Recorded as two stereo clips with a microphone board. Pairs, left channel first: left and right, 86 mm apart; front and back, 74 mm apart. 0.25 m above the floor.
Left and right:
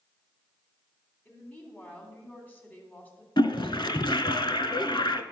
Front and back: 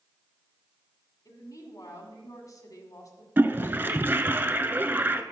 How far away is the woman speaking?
About 2 m.